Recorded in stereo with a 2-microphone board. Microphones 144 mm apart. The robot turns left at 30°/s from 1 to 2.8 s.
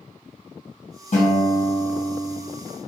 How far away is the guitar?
About 1.8 m.